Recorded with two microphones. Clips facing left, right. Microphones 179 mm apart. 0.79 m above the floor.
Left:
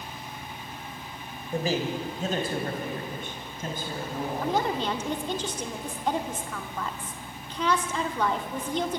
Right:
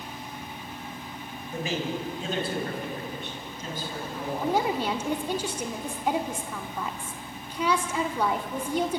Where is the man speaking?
35° left (ahead or behind), 4.5 m; by 4.6 s 55° left (ahead or behind), 8 m.